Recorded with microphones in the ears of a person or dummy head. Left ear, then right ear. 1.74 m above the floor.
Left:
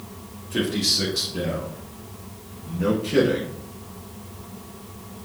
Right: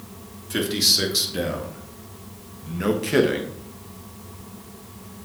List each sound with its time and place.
0.5 s a man speaking: 75° right (ahead or behind), 3 m; by 3.5 s 40° right (ahead or behind), 1.6 m